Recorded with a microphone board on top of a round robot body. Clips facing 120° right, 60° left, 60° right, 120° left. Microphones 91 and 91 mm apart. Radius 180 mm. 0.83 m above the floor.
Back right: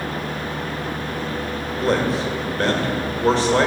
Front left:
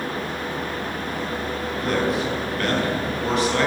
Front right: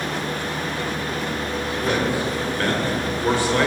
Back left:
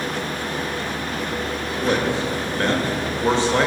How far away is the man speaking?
About 2.0 m.